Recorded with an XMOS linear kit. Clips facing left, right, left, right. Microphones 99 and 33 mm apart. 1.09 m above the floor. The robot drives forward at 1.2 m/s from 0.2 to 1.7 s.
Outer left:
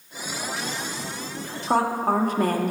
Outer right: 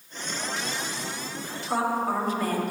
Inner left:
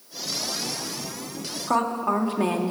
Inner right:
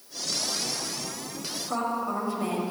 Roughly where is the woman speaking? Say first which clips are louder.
Outer left 4 dB, inner left 6 dB; left.